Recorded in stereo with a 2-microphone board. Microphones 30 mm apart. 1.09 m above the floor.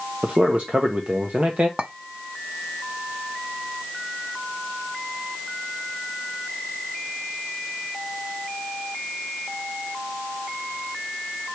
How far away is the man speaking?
About 0.8 m.